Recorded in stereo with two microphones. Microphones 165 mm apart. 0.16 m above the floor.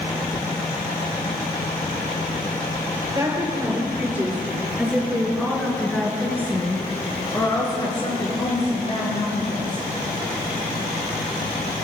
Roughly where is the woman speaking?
Centre.